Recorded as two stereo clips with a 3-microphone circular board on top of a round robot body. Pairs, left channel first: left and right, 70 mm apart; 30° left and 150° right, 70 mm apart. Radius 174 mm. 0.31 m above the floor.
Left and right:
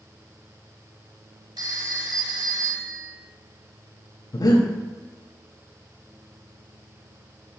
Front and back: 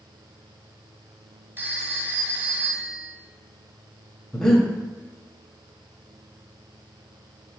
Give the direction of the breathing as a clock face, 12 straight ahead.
8 o'clock.